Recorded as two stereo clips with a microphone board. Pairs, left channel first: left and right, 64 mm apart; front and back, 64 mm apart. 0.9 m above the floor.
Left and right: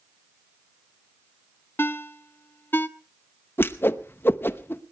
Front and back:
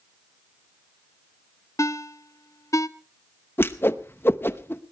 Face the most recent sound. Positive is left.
turn(degrees=45)